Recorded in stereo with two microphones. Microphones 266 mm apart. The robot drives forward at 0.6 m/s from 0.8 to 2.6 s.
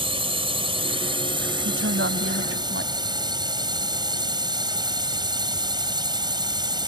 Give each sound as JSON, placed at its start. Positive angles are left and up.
{"t": 0.0, "sound": "a drone", "side_deg": -20}
{"t": 1.6, "sound": "a woman speaking", "side_deg": -55}